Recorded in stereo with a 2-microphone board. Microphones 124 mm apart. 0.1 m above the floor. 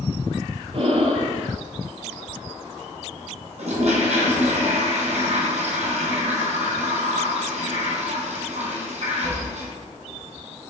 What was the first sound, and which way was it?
Breathing, 55° right (ahead or behind).